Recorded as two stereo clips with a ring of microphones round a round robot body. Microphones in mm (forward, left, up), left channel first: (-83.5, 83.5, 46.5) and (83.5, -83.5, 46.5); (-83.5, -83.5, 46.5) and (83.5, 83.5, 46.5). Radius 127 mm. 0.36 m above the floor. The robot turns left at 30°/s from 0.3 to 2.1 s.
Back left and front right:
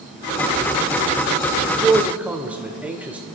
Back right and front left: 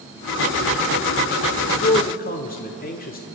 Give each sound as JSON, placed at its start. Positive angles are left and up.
{"t": 1.7, "sound": "a man speaking", "azimuth_deg": -115, "distance_m": 0.9}